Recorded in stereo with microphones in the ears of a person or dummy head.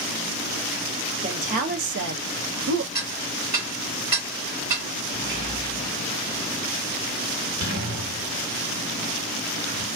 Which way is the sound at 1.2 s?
40° right (ahead or behind).